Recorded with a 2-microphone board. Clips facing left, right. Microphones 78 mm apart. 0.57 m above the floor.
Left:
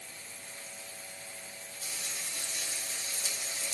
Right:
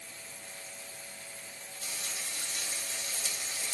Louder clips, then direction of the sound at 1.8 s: Right 1 dB; 55° right (ahead or behind).